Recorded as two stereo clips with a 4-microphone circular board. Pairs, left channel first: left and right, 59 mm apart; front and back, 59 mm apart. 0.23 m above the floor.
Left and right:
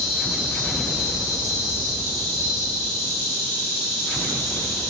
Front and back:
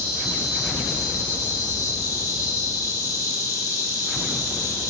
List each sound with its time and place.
0.0 s an insect: 140° left, 3 m